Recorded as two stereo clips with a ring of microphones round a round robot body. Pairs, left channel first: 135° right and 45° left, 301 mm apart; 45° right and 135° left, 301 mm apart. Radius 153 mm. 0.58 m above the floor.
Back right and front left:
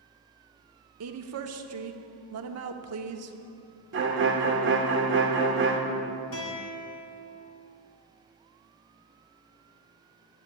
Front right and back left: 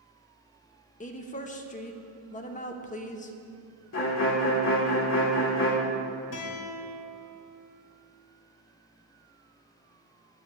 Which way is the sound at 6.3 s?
90° right.